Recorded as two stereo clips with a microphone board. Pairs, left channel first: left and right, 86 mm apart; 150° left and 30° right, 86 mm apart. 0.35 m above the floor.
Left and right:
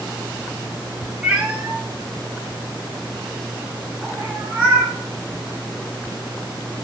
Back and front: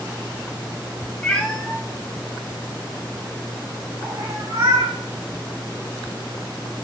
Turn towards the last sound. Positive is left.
turn(degrees=-15)